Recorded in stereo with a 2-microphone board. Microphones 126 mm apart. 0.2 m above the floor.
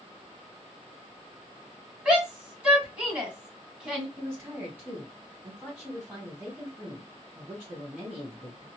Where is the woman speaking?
15° right (ahead or behind), 1.8 m.